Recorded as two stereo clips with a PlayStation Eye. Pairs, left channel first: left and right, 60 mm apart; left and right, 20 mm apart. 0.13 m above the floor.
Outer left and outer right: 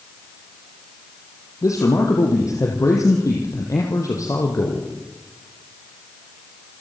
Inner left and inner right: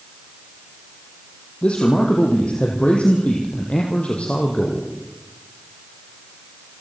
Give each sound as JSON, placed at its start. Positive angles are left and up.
{"t": 1.6, "sound": "a man speaking", "side_deg": 65, "distance_m": 4.0}